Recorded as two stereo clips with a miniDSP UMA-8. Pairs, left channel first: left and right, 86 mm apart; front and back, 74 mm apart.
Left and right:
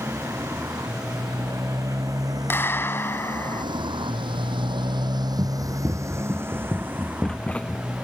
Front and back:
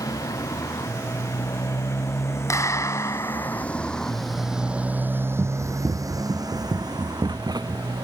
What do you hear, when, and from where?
0.0 s a motorcycle: 35° right; by 8.1 s 170° right
2.5 s a clap: 35° left
5.4 s running footsteps: 125° right; by 7.8 s 160° left